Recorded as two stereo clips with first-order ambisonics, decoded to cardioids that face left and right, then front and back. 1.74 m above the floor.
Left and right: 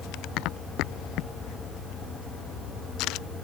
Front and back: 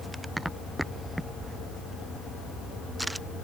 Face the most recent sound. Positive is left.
No sound to turn to.